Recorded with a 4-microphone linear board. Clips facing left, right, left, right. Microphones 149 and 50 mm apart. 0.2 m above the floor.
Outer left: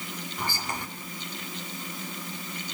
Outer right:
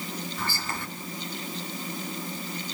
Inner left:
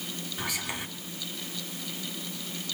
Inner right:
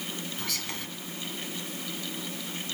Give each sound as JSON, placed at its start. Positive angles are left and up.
{"t": 0.4, "sound": "whispering", "side_deg": 15, "distance_m": 1.5}